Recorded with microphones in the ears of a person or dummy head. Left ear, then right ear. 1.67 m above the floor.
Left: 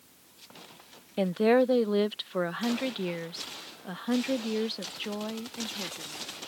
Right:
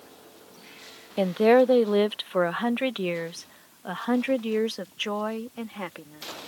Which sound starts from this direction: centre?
A woman speaking, at 1.2 s.